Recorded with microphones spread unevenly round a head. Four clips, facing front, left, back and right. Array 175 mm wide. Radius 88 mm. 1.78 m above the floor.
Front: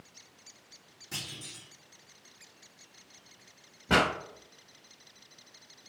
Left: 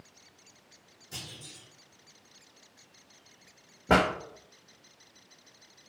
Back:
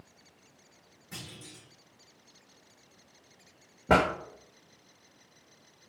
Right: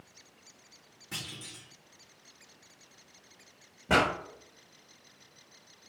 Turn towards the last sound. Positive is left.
turn(degrees=150)